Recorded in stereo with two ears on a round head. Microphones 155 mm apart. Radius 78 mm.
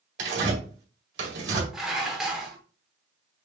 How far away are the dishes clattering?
About 1.1 m.